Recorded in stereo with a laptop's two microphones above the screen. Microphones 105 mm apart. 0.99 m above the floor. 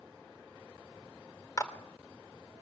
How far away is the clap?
About 2.5 m.